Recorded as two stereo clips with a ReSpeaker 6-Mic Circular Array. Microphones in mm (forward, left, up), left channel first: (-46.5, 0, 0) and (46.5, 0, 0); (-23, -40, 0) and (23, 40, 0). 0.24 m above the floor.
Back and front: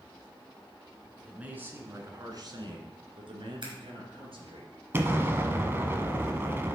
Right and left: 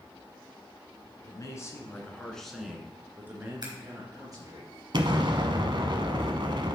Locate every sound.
1.2 s a man speaking: 75° right, 2.5 m; by 4.6 s 10° left, 4 m
3.6 s scissors: 20° left, 3.5 m
4.9 s an explosion: 60° left, 1.0 m